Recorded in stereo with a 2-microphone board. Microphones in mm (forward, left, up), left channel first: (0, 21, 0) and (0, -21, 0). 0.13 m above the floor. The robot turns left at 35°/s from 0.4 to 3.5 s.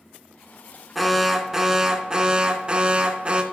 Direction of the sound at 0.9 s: 5° right (ahead or behind).